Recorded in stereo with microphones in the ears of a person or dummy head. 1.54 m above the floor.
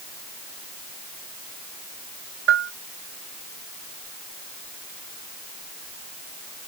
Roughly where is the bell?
Right.